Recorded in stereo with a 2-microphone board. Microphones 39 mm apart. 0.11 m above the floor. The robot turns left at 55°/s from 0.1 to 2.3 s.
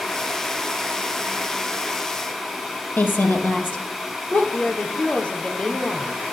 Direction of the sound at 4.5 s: 30° left (ahead or behind).